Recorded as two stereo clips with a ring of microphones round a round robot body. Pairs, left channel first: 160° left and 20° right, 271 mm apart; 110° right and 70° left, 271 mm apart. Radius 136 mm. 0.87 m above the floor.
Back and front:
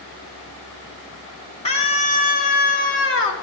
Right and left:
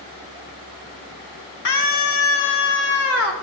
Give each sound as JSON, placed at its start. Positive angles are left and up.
{"t": 1.6, "sound": "a scream", "azimuth_deg": -135, "distance_m": 2.5}